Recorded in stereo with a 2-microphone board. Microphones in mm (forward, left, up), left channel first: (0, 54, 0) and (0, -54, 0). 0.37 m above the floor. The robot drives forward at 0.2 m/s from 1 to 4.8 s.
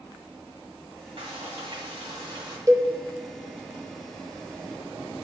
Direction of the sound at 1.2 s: 55° right (ahead or behind).